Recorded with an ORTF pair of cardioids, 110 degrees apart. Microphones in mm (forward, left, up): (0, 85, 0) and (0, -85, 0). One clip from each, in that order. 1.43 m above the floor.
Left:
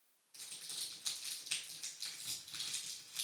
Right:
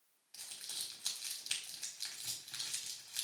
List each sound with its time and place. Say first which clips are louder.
0.3 s crumpling: right 1 dB; 60° right, 4 m